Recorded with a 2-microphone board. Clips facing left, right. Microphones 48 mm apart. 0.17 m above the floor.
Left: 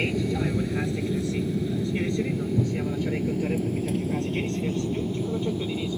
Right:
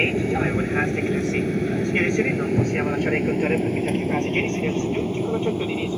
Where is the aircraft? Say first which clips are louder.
Right 5 dB; 40° right (ahead or behind).